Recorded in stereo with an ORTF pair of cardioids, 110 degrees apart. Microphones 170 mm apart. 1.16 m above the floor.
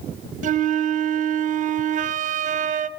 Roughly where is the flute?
Ahead right.